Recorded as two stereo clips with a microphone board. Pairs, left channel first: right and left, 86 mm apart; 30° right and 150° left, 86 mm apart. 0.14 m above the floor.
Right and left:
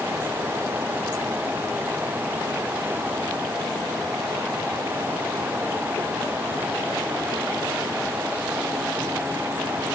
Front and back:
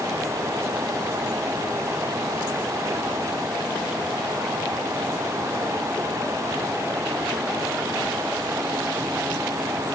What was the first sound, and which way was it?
Only background noise.